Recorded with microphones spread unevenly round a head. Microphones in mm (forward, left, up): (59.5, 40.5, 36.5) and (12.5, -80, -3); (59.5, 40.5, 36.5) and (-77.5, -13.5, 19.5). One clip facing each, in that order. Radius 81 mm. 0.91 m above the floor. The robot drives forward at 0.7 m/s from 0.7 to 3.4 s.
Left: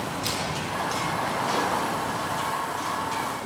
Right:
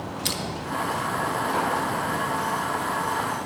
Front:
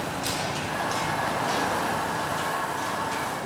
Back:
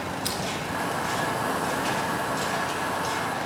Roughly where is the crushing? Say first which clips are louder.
Left 1 dB, front 1 dB; right.